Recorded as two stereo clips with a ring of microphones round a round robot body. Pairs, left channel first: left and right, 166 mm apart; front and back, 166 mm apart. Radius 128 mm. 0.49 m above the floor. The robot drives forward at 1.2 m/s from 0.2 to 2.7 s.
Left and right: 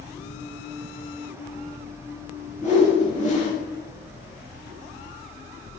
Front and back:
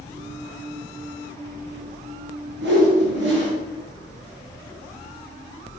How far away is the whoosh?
About 8 m.